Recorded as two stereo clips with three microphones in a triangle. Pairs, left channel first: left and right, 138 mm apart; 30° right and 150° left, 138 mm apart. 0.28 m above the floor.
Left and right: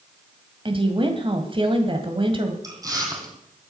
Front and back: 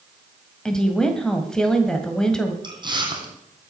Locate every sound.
0.7 s a woman speaking: 115° right, 2.0 m
2.6 s chewing: 155° right, 3 m